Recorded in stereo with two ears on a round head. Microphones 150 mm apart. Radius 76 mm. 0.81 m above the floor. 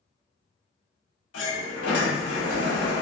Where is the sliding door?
75° left (ahead or behind), 1.1 m.